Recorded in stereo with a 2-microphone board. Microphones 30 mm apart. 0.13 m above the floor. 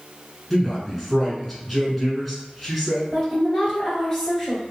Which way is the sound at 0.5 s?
5° left (ahead or behind).